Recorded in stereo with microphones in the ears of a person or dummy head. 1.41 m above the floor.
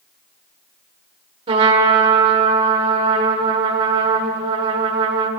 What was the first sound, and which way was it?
A trumpet, 40° right (ahead or behind).